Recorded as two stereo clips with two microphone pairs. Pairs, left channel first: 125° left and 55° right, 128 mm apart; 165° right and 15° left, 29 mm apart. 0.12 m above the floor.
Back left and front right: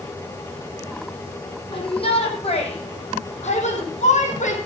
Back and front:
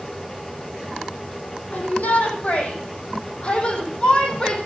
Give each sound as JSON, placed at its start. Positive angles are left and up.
{"t": 1.7, "sound": "a shout", "azimuth_deg": 170, "distance_m": 6.0}